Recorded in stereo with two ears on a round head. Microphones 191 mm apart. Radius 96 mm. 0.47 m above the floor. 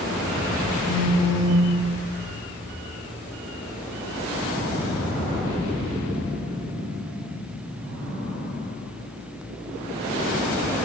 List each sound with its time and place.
0.8 s a phone buzzing: 20° right (ahead or behind), 1.4 m